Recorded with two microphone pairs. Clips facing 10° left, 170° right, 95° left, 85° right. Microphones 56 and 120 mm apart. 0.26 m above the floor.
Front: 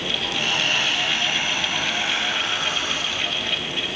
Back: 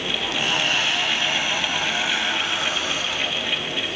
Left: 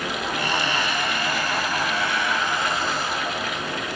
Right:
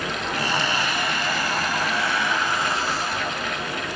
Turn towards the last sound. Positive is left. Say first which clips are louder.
# even, right 1 dB
turn(degrees=-100)